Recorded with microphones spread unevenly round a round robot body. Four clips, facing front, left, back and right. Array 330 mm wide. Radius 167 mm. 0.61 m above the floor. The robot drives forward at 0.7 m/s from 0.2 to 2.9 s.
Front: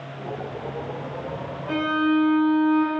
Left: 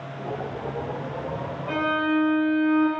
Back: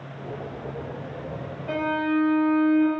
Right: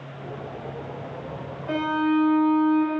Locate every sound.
1.7 s a violin: 160° right, 3.5 m; by 2.9 s 165° right, 4.5 m